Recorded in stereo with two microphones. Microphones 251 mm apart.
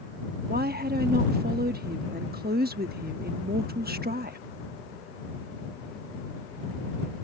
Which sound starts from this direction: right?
A woman speaking, at 0.5 s.